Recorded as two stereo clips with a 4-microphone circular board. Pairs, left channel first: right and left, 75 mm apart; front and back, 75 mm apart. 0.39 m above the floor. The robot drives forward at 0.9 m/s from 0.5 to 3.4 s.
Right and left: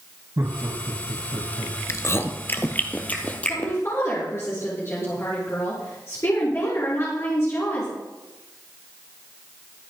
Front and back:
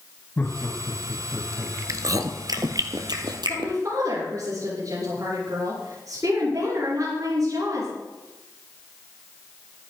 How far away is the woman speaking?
About 7 m.